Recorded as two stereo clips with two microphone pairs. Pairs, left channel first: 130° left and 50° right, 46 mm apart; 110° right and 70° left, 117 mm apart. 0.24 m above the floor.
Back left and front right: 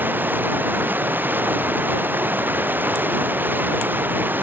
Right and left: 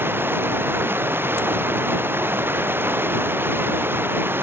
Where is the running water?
5° right.